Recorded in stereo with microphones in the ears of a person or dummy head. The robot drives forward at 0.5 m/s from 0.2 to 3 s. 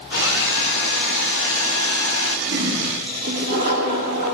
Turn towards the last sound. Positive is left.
turn(degrees=-60)  # may be behind; listen again after turning